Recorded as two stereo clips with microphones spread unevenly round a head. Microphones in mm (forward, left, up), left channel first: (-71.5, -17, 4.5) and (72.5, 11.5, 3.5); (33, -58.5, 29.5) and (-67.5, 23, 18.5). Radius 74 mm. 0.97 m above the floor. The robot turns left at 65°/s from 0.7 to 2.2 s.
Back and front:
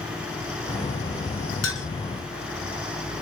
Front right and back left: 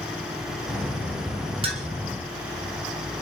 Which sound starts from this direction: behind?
A clink, at 1.6 s.